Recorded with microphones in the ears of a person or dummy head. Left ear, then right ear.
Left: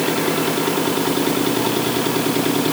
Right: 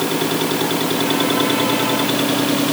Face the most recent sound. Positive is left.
No sound to turn to.